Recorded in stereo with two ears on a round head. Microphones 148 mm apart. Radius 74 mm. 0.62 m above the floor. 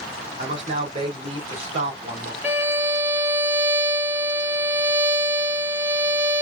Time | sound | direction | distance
0.4 | a man speaking | 45° right (ahead or behind) | 3 m
2.4 | a violin | 10° right (ahead or behind) | 1.3 m